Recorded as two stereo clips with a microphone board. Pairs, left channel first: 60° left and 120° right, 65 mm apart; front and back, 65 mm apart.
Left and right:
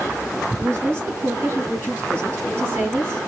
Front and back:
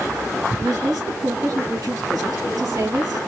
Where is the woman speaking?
170° right, 3.5 m.